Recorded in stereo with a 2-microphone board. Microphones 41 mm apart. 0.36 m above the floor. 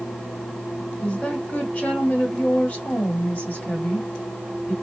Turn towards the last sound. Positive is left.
turn(degrees=35)  # may be behind; listen again after turning